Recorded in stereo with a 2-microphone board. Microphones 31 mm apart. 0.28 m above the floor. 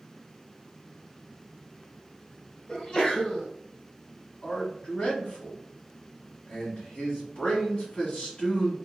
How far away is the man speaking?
About 2.0 m.